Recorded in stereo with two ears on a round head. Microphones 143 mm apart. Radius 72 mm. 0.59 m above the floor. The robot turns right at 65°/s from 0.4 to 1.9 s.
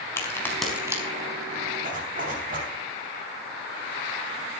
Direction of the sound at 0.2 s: 15° left (ahead or behind).